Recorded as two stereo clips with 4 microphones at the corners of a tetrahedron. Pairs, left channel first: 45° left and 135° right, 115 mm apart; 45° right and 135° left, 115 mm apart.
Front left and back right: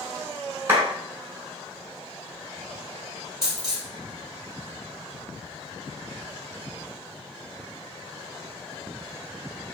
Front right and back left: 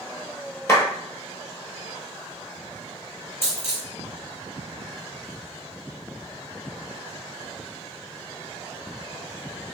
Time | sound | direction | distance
0.7 | a clap | 85° right | 1.1 m
3.4 | a dropped coin | 20° right | 2.0 m